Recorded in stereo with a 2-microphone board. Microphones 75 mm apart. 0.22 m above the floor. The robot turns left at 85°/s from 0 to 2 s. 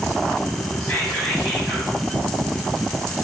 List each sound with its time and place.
0.8 s whispering: 15° left (ahead or behind), 1.4 m; by 1.9 s 15° right (ahead or behind), 1.4 m